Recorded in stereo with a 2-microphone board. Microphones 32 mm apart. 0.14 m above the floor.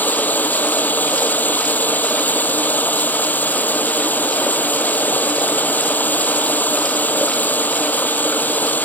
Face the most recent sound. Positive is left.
turn(degrees=70)  # may be behind; listen again after turning